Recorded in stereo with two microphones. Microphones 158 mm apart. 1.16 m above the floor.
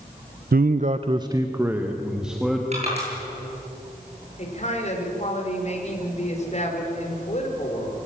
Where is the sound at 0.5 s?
70° right (ahead or behind), 0.5 m; by 2.6 s centre (ahead or behind), 1.9 m.